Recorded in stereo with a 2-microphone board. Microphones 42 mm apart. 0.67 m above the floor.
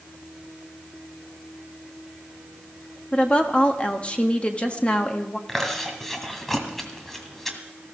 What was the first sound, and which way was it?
A woman speaking, 25° left (ahead or behind).